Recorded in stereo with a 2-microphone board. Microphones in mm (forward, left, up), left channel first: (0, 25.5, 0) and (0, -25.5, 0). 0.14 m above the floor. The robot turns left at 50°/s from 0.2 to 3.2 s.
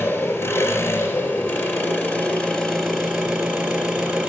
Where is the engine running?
135° left, 1.9 m; by 4.3 s 15° right, 1.9 m.